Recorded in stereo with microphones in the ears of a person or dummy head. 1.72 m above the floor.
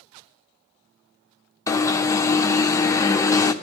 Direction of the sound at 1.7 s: 15° left (ahead or behind).